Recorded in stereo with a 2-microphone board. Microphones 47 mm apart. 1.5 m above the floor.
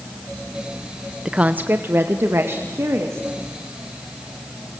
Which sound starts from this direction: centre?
A woman speaking, at 1.2 s.